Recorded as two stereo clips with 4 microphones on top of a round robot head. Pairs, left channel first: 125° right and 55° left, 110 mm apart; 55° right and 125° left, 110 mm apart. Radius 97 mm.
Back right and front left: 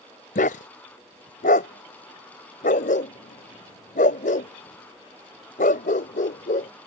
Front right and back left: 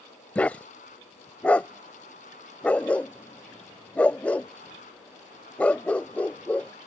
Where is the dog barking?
130° right.